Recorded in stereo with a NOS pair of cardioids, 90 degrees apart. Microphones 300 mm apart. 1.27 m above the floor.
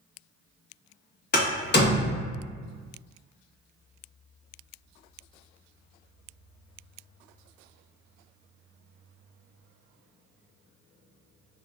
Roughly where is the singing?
I don't hear singing.